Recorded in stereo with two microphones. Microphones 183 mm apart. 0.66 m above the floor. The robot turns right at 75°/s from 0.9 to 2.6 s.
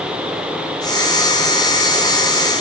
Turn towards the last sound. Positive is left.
No sound to turn to.